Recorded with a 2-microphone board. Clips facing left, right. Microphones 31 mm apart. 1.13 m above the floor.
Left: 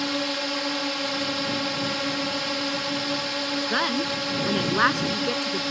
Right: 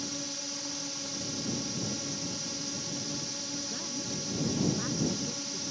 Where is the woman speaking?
65° left (ahead or behind).